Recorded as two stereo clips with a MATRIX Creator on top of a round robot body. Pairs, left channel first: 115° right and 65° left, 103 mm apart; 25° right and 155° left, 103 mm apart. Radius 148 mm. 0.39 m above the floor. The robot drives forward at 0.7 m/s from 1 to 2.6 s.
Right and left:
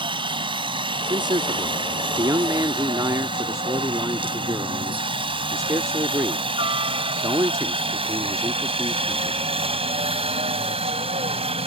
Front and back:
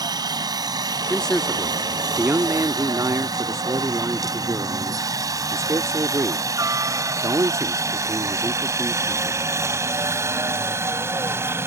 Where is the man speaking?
55° left; by 9.4 s 110° left.